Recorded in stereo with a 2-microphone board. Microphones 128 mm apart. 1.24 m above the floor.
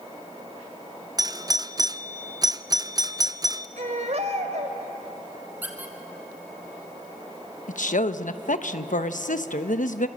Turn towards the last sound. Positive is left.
turn(degrees=85)